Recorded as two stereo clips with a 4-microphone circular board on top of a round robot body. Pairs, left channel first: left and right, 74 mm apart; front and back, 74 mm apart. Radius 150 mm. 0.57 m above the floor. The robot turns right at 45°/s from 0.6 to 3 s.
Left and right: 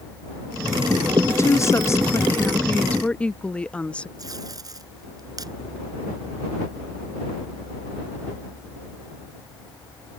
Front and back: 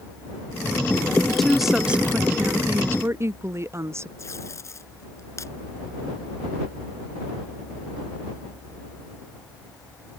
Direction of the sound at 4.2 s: 50° right.